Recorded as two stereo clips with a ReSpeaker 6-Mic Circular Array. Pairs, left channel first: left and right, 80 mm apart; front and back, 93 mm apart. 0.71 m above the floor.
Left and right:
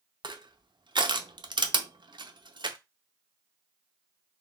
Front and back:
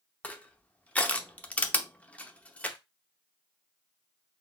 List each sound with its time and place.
0.2 s crushing: 75° right, 0.6 m